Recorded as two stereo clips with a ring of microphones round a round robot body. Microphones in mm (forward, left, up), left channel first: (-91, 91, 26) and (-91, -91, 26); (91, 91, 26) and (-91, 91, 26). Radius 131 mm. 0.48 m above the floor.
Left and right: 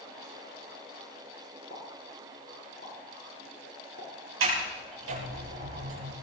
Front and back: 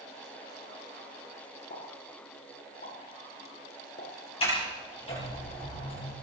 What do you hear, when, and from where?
1.7 s a pop: 35° left, 7 m
4.4 s a sliding door: 70° right, 5 m